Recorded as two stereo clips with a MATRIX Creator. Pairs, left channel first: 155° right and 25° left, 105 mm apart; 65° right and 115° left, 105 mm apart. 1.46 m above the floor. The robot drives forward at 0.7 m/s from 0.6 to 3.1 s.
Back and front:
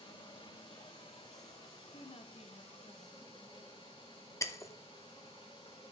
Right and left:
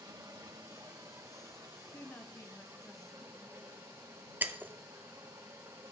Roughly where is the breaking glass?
Behind.